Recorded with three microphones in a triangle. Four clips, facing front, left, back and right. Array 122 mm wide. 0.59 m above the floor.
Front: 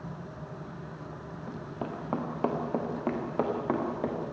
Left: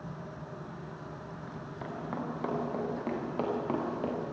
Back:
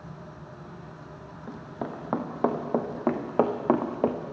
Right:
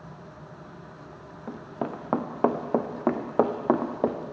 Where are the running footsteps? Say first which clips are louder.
Right 10 dB, back 2 dB; 100° right, 3 m; by 4.3 s 135° right, 3 m.